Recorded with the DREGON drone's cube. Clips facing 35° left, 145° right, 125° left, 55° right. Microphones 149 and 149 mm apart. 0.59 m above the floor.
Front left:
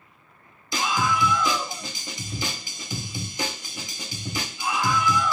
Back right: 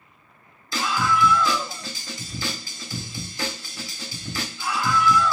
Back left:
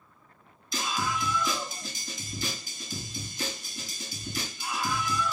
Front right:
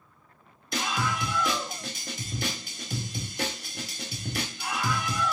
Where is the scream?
35° right, 4 m.